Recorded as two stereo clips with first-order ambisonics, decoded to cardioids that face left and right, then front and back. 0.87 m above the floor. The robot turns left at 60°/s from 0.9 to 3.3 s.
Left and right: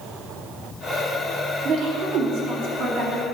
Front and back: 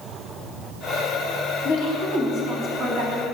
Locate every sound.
1.6 s a woman speaking: 35° right, 2 m; by 3.2 s 135° right, 2 m